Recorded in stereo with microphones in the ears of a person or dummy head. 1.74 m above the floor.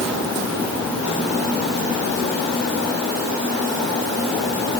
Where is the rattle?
No rattle in this recording.